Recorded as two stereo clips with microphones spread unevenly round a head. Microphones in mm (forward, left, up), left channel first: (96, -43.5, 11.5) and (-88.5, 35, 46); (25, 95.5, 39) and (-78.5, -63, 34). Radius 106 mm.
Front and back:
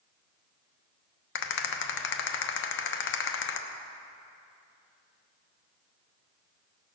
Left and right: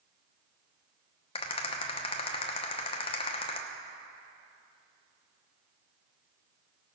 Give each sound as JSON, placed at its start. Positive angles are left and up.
{"t": 1.4, "sound": "a rattle", "azimuth_deg": -5, "distance_m": 0.9}